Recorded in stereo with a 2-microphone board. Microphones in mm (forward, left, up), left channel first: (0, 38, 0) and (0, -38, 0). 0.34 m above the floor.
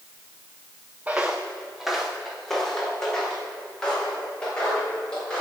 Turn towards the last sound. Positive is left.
turn(degrees=15)  # may be behind; listen again after turning